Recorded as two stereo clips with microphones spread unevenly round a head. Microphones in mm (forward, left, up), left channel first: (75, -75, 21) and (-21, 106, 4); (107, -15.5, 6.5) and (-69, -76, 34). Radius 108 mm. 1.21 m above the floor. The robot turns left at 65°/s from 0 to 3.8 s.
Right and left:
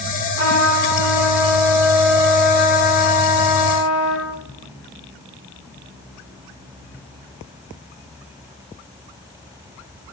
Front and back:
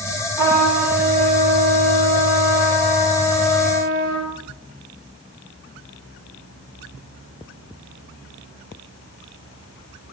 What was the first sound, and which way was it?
A trumpet, 50° right.